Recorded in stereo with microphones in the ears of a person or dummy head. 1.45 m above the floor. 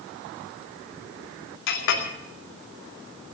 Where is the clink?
65° left (ahead or behind), 2.5 m.